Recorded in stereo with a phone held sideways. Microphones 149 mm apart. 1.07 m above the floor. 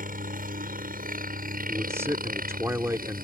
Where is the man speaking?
20° right (ahead or behind).